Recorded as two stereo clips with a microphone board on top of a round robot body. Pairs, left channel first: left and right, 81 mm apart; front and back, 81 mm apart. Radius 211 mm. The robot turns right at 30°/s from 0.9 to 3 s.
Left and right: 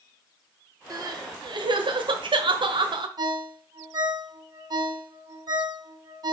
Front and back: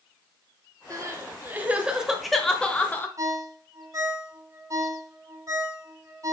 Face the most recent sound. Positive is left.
turn(degrees=-130)